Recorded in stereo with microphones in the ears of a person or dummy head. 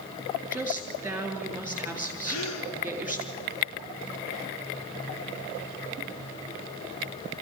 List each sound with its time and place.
0.5 s a woman speaking: 10° right (ahead or behind), 3.5 m
2.2 s a gasp: 75° left (ahead or behind), 2.5 m